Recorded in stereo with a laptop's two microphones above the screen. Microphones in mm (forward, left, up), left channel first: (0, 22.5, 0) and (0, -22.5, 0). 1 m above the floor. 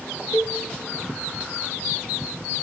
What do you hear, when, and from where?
0.3 s a cowbell: 80° left, 3.5 m